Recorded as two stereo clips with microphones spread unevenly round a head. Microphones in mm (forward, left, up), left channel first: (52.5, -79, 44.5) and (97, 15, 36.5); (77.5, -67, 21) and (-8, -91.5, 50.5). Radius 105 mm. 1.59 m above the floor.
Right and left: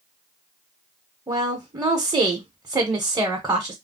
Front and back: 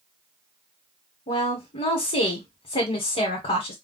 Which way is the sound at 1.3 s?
5° left.